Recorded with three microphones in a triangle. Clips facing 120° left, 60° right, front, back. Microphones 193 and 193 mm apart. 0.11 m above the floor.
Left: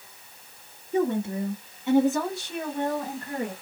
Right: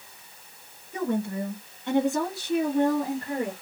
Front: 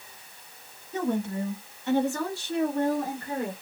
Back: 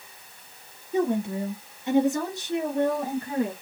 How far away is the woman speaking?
About 1.6 m.